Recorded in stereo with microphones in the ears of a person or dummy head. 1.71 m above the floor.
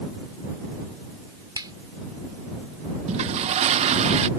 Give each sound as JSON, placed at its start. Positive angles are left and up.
{"t": 1.6, "sound": "a finger snap", "side_deg": -20}
{"t": 3.1, "sound": "a toilet flushing", "side_deg": -35}